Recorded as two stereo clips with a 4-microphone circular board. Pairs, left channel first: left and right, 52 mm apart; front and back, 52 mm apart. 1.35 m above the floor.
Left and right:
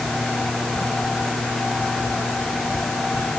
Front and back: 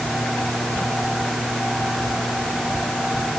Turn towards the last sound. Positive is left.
No sound to turn to.